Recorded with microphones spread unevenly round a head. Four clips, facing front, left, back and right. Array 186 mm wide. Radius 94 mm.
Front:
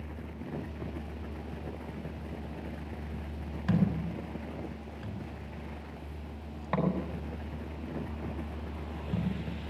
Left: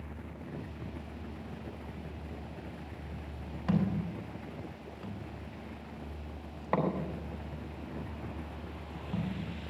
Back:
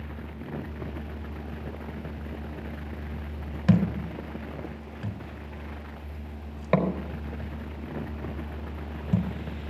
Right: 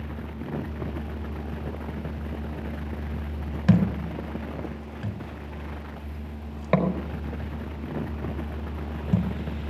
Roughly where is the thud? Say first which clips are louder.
Right 8 dB, back 5 dB; behind right.